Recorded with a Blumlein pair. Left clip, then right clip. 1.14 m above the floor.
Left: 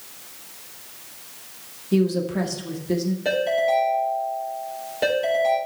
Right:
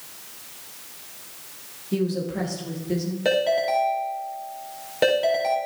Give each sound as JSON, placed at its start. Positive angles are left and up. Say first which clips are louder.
{"t": 1.9, "sound": "a woman speaking", "louder": "left 4 dB", "azimuth_deg": 15, "distance_m": 1.8}
{"t": 3.2, "sound": "a ringtone", "louder": "even", "azimuth_deg": -20, "distance_m": 3.0}